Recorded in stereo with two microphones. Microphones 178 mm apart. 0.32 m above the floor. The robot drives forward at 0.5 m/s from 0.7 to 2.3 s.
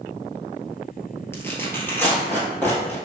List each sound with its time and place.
1.3 s tearing paper: 15° left (ahead or behind), 1.1 m; by 3.0 s 10° left (ahead or behind), 1.6 m